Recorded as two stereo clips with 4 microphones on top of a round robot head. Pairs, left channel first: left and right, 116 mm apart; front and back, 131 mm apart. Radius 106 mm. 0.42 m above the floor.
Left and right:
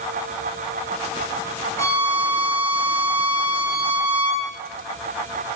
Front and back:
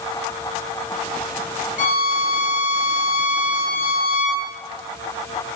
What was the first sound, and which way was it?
A violin, 15° left.